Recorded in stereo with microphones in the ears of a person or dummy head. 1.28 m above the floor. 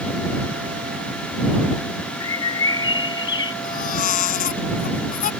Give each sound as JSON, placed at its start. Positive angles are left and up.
{"t": 2.2, "sound": "a bird", "side_deg": 25}
{"t": 3.6, "sound": "a baby crying", "side_deg": 45}